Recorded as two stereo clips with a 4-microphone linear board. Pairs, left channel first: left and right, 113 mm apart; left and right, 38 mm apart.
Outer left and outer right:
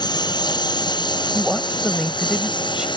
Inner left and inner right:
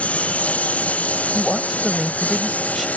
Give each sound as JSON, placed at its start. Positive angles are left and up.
{"t": 0.0, "sound": "a lawn mower", "side_deg": 40}
{"t": 1.3, "sound": "a woman speaking", "side_deg": -5}